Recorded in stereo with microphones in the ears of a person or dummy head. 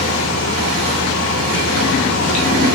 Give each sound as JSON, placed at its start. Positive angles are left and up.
{"t": 0.0, "sound": "a fan", "side_deg": 70, "distance_m": 2.0}